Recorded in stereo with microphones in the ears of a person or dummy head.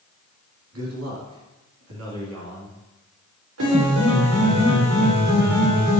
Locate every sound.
0.7 s a man speaking: 85° right, 3 m
3.6 s a piano: 80° right, 2.5 m